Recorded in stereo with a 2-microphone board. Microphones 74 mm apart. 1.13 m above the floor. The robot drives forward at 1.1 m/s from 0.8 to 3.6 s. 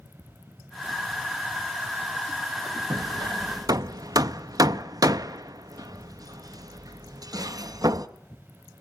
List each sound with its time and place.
2.9 s hammering: 65° right (ahead or behind), 0.8 m; by 8.1 s 60° right (ahead or behind), 0.9 m